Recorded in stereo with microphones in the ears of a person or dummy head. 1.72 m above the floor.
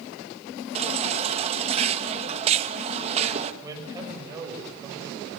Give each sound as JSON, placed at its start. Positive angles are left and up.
{"t": 0.8, "sound": "a baby crying", "side_deg": -35, "distance_m": 1.8}
{"t": 3.6, "sound": "a man speaking", "side_deg": -20, "distance_m": 9.0}